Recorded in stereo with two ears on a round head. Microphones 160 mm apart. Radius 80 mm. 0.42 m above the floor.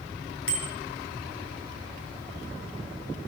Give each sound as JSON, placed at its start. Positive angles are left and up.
{"t": 0.5, "sound": "a bicycle bell", "side_deg": 75, "distance_m": 4.5}